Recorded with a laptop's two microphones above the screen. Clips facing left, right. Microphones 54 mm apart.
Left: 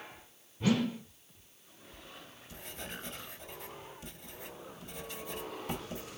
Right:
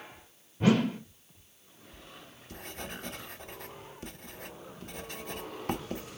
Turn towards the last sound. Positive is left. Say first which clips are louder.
# right 1 dB
turn(degrees=-55)  # may be behind; listen again after turning